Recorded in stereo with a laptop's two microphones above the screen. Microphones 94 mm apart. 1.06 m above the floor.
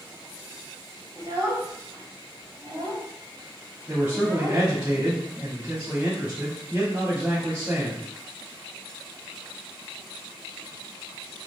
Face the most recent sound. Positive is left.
turn(degrees=-20)  # may be behind; listen again after turning